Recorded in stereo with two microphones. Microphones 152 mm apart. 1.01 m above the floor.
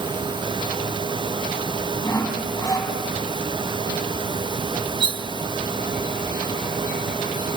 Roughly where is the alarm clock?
I don't hear an alarm clock.